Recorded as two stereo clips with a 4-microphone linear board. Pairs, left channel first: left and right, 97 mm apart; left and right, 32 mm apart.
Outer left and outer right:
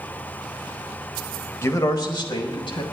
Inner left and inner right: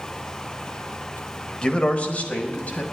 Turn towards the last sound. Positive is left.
turn(degrees=65)  # may be behind; listen again after turning